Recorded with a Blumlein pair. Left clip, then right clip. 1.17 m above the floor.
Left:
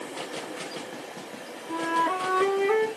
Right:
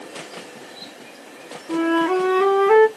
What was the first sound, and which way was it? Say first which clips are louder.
A flute: right 6 dB; 15° right.